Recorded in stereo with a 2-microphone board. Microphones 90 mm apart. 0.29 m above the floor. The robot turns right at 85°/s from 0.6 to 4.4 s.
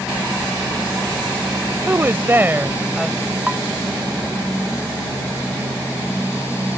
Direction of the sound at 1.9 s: 25° right (ahead or behind).